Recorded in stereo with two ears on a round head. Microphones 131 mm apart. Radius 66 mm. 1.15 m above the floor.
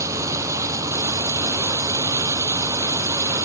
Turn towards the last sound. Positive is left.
turn(degrees=-20)  # may be behind; listen again after turning